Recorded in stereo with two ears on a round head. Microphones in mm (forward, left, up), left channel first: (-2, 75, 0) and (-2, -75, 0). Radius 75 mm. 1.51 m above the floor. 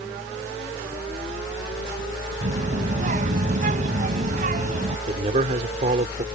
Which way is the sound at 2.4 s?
50° right (ahead or behind).